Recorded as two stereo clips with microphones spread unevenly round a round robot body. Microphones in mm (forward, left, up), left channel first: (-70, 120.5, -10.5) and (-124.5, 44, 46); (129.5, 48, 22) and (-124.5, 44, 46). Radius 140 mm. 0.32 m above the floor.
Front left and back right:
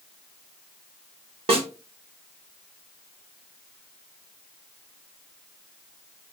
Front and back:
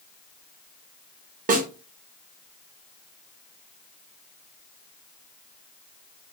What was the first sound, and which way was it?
A snare drum, 135° right.